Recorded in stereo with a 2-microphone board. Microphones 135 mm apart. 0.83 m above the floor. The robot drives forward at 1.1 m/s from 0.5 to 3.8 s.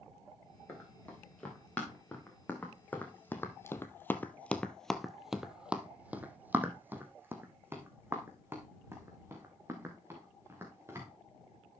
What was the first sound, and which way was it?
Running footsteps, 10° left (ahead or behind).